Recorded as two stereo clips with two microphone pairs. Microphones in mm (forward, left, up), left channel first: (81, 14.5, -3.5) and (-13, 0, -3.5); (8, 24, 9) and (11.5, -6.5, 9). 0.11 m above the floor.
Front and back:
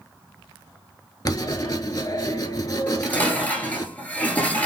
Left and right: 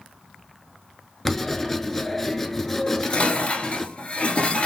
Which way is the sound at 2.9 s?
75° left.